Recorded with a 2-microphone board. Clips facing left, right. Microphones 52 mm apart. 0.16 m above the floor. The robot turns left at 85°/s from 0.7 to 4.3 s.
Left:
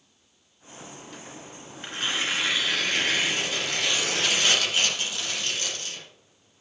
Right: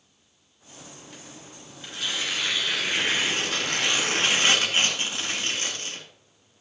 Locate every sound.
1.8 s tearing paper: 75° left, 1.8 m; by 6.0 s 135° right, 1.8 m